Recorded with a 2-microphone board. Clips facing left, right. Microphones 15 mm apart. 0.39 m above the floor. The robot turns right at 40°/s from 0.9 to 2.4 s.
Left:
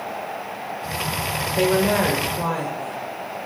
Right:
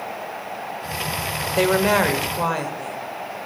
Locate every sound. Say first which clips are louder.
1.6 s a woman speaking: right 1 dB; 90° right, 1.1 m; by 3.0 s 55° right, 1.1 m